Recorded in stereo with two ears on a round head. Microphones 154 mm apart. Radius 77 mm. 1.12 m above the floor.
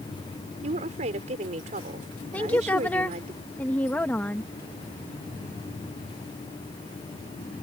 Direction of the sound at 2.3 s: 10° left (ahead or behind).